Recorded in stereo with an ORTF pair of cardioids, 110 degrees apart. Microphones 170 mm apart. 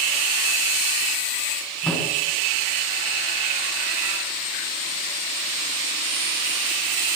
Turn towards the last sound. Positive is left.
turn(degrees=5)